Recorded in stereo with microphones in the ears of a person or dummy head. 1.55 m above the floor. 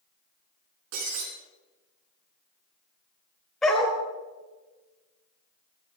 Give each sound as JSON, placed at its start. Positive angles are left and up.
{"t": 0.9, "sound": "breaking glass", "side_deg": -75, "distance_m": 6.0}
{"t": 3.6, "sound": "a dog barking", "side_deg": 5, "distance_m": 3.0}